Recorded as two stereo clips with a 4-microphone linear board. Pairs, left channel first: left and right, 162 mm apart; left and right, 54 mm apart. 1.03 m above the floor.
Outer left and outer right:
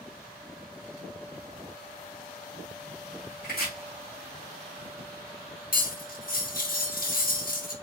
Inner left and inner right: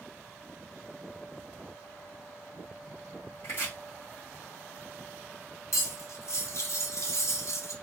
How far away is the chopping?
About 1.8 m.